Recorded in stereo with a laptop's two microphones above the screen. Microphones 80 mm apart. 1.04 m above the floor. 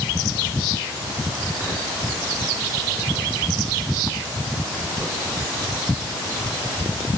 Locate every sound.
Only background noise.